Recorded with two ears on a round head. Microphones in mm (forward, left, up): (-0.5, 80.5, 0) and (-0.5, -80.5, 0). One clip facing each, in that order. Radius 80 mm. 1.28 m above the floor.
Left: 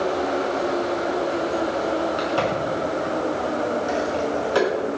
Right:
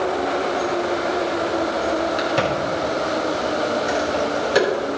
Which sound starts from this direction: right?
A crack, at 2.2 s.